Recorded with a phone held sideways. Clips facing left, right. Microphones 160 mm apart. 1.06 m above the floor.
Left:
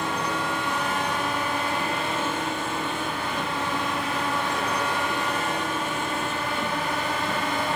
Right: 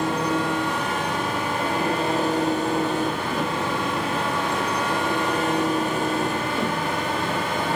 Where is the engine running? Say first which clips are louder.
Right 5 dB; 40° right (ahead or behind).